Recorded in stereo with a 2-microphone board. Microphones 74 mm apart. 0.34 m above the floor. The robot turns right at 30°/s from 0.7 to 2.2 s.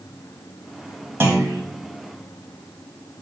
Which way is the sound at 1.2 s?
35° right (ahead or behind).